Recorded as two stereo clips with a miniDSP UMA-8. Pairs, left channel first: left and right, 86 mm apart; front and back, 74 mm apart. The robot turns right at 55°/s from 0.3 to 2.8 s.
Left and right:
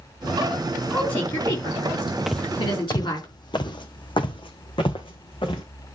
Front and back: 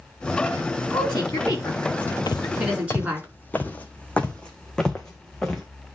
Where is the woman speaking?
5° left, 4 m; by 3.3 s 110° left, 4 m.